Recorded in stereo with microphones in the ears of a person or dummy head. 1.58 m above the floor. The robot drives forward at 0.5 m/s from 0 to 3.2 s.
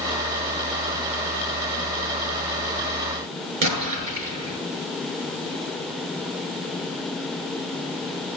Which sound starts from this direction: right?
An explosion, at 3.6 s.